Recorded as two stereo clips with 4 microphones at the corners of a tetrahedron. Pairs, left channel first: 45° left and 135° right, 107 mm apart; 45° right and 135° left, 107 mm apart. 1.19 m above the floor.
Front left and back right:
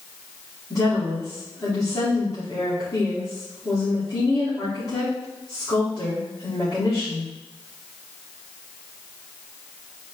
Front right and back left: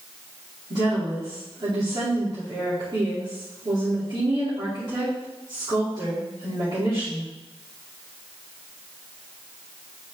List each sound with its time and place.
0.7 s a woman speaking: 95° left, 3 m